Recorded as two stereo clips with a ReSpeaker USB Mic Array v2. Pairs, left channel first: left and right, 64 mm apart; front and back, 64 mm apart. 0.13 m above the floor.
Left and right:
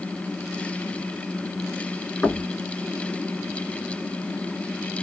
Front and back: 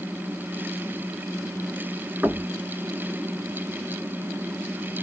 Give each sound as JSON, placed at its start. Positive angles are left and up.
{"t": 2.2, "sound": "knocking", "azimuth_deg": 155, "distance_m": 0.8}